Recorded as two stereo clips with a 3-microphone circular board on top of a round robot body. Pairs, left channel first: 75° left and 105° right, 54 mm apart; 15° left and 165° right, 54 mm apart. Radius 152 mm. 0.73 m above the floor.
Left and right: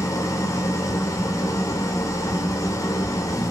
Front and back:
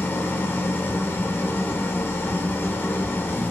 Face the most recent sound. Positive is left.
turn(degrees=70)